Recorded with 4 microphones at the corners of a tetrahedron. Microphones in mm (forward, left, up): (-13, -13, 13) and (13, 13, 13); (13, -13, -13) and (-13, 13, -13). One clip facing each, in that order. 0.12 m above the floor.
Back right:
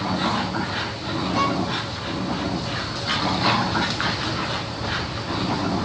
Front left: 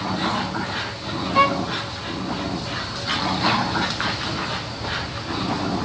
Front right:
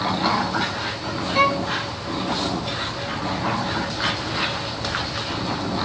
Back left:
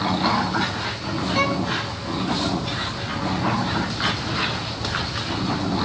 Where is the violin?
25° left, 1.3 m.